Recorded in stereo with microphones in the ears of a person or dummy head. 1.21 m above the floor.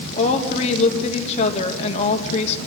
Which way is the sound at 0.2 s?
45° left (ahead or behind).